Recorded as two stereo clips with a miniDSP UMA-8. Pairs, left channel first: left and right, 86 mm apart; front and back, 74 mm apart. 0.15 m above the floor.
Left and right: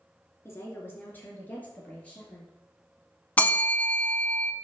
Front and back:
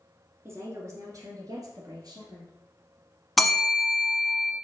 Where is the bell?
95° left, 0.8 m.